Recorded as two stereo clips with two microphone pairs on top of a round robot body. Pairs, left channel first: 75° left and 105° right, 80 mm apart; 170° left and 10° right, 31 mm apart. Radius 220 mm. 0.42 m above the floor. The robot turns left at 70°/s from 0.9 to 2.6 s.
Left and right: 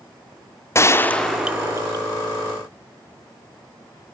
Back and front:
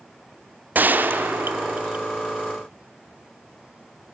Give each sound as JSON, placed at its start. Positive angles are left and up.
{"t": 0.8, "sound": "a gunshot", "azimuth_deg": 15, "distance_m": 0.7}